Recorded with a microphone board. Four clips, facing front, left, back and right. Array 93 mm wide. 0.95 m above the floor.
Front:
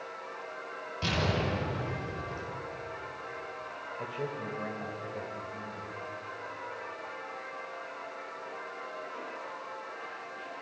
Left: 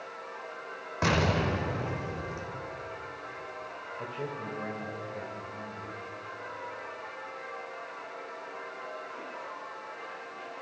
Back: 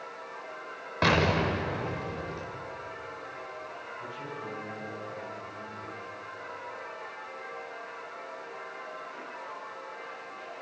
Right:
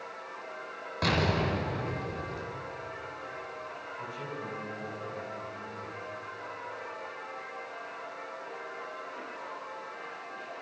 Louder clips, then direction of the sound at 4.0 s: Left 3 dB, front 4 dB; 40° left.